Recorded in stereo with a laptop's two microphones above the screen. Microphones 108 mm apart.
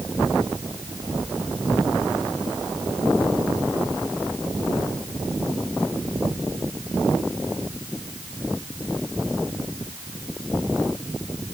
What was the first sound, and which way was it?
Only background noise.